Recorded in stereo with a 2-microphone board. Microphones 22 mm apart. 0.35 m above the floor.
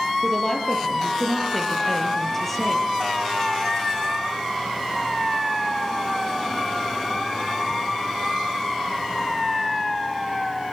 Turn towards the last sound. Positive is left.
turn(degrees=10)  # may be behind; listen again after turning